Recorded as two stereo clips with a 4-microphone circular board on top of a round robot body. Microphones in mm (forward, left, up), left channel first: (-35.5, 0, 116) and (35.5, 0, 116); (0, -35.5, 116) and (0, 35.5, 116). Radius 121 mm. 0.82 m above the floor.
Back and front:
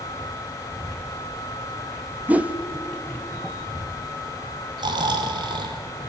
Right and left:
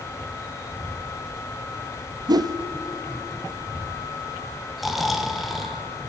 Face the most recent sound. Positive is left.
turn(degrees=0)